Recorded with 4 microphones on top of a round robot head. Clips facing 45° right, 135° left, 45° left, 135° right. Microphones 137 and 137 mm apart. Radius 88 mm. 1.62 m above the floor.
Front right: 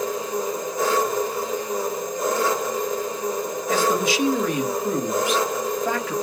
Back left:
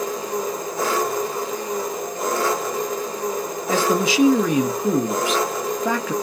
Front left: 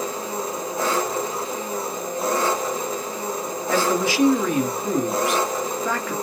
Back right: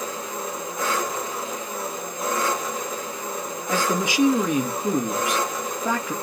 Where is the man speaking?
150° left, 0.9 m.